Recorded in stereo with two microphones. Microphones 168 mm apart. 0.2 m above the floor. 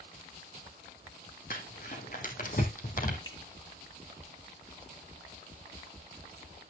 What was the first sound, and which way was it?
Crumpling, 55° left (ahead or behind).